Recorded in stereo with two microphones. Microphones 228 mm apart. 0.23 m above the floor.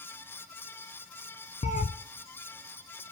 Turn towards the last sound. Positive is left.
turn(degrees=35)  # may be behind; listen again after turning